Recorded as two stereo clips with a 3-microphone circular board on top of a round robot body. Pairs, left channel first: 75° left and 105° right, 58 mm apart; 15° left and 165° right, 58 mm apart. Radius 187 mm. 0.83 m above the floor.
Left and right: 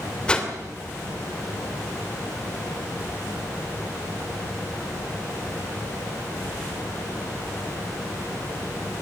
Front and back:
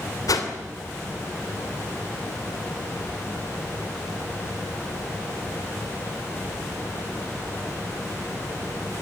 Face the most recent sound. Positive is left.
turn(degrees=0)